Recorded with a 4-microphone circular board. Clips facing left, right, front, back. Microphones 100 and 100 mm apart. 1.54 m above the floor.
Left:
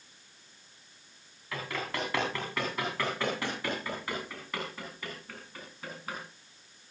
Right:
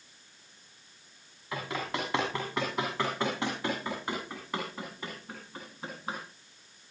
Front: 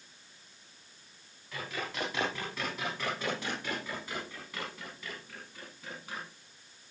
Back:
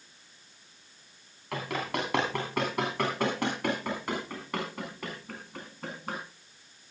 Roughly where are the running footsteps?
Behind.